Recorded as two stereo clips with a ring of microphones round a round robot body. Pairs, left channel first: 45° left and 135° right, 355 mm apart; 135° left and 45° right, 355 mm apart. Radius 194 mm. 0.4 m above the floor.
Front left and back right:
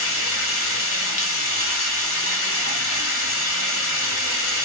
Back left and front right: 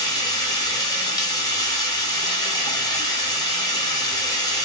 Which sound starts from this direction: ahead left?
Running water, at 0.0 s.